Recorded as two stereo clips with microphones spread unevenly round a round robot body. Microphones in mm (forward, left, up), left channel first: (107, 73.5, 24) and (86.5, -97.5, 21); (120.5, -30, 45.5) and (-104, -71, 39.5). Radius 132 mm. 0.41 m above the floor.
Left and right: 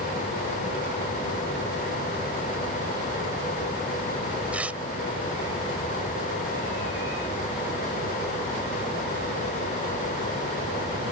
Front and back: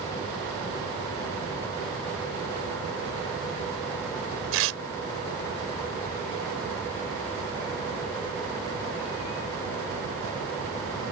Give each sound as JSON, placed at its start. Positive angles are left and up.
{"t": 4.5, "sound": "tearing paper", "azimuth_deg": 180}